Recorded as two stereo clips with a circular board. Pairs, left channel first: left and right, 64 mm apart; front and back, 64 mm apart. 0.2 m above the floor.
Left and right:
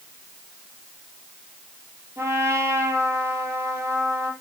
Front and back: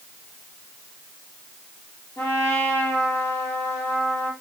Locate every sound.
2.2 s a trumpet: 40° right, 5.5 m